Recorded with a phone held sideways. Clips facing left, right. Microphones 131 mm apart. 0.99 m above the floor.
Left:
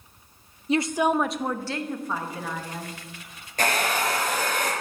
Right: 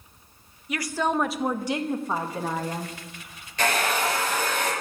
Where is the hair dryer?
50° left (ahead or behind), 4.5 m.